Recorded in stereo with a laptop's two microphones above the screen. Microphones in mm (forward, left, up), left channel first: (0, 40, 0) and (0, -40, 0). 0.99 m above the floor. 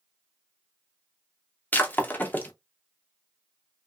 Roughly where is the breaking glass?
Left.